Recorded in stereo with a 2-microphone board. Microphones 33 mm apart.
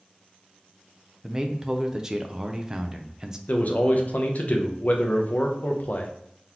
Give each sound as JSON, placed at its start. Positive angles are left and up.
{"t": 1.2, "sound": "a man speaking", "side_deg": -20, "distance_m": 0.5}
{"t": 3.5, "sound": "a man speaking", "side_deg": 45, "distance_m": 0.7}